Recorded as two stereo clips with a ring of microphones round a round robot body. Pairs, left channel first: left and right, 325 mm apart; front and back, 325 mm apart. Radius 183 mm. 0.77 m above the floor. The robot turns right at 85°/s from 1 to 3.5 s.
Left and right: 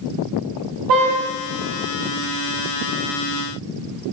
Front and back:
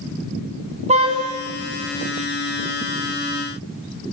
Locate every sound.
0.9 s a car horn: 110° right, 2.5 m; by 1.2 s 95° right, 2.5 m